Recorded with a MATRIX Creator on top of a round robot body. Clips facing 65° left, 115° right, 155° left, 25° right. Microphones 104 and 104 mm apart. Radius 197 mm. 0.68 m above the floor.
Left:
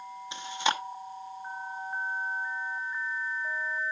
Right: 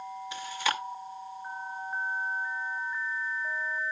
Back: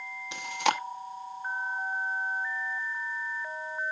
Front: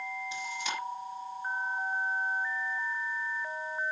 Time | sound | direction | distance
0.3 | chewing | 135° left | 1.0 m